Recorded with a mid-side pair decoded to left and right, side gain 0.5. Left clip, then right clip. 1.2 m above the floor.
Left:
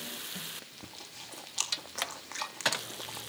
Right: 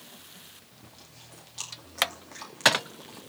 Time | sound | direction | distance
0.8 | chewing | 40° left | 2.5 m